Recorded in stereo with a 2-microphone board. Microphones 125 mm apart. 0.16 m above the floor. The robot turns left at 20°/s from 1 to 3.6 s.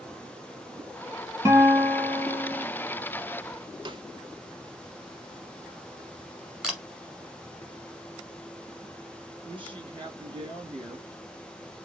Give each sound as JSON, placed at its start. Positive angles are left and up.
{"t": 1.4, "sound": "a guitar", "side_deg": -25, "distance_m": 2.0}
{"t": 3.9, "sound": "a snare drum", "side_deg": -40, "distance_m": 0.7}
{"t": 6.6, "sound": "a camera shutter", "side_deg": -5, "distance_m": 1.5}
{"t": 9.4, "sound": "a woman speaking", "side_deg": -40, "distance_m": 2.5}